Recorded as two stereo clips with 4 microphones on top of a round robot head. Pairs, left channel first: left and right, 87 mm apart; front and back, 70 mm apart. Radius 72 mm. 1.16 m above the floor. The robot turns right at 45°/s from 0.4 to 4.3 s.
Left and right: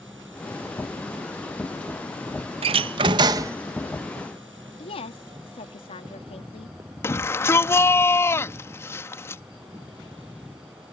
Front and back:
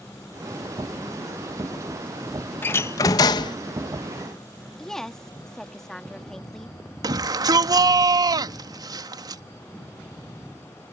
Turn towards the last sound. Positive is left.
turn(degrees=150)